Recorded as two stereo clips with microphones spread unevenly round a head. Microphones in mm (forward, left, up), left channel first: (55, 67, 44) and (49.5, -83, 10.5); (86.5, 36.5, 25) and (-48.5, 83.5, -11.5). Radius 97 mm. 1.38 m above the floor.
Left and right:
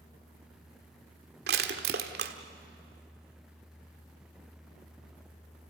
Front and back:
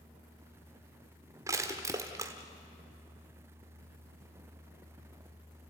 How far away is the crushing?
About 1.3 m.